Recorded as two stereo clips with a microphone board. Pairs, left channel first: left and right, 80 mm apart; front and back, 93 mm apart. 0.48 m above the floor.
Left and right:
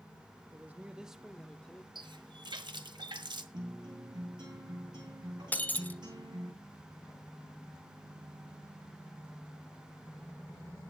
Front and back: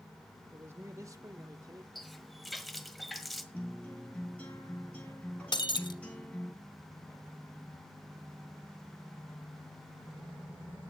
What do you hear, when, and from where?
0.5 s a man speaking: 130° right, 1.1 m; by 1.9 s 160° left, 1.3 m
1.9 s a running tap: 90° right, 1.5 m
3.5 s a guitar: 75° right, 10 m
5.5 s breaking glass: 20° left, 0.8 m